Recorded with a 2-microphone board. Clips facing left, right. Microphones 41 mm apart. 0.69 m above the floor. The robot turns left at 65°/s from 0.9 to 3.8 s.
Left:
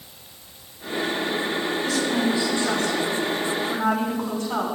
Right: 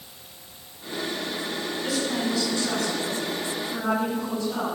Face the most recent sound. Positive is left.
turn(degrees=65)